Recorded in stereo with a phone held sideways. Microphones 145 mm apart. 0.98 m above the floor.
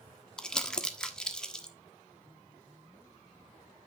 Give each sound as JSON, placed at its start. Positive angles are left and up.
{"t": 0.4, "sound": "crumpling", "side_deg": 5, "distance_m": 1.2}